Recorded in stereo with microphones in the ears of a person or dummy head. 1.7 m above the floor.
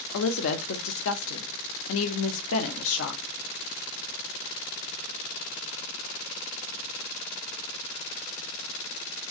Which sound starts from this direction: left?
A woman speaking, at 0.1 s.